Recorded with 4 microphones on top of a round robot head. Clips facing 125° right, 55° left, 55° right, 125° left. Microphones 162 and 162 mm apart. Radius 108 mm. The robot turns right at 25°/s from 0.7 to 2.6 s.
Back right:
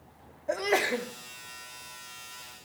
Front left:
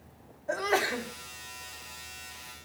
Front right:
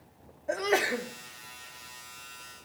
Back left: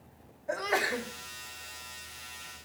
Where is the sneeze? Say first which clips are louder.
Back right 2 dB, front right 4 dB; 80° right, 1.1 m; by 1.1 s 70° right, 1.1 m.